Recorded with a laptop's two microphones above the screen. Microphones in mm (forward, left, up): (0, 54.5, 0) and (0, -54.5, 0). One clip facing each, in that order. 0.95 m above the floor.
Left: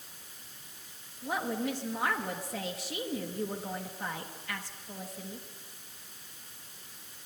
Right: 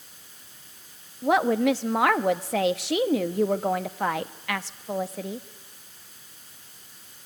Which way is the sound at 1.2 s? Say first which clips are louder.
Right 12 dB; 80° right.